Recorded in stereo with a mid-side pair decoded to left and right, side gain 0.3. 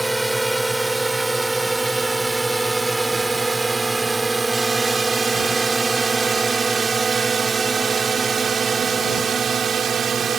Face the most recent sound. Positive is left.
turn(degrees=-70)